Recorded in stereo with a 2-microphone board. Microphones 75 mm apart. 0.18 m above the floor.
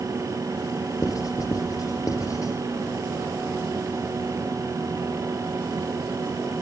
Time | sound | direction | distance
1.0 | writing | 50° left (ahead or behind) | 6 m